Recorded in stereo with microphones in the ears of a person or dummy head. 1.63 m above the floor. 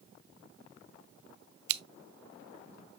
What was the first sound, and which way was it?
Scissors, 60° right (ahead or behind).